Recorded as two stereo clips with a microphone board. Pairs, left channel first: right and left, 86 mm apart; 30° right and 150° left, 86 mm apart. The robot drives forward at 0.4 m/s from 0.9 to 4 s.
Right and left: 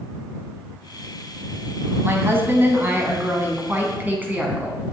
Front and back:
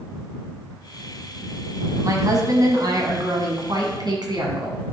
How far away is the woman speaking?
About 1.8 m.